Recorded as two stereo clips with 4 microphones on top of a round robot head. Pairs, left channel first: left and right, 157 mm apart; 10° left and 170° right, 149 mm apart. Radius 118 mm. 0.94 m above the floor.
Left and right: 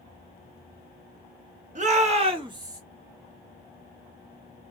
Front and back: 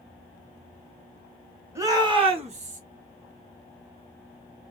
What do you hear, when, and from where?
1.8 s a shout: 105° right, 0.8 m; by 2.8 s 155° right, 0.9 m